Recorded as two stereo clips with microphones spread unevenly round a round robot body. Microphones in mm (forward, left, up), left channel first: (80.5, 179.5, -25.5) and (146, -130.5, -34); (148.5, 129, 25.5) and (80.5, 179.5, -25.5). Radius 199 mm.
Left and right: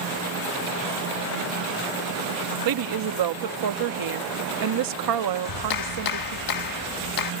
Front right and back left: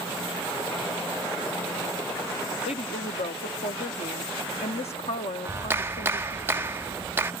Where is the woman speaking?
70° right.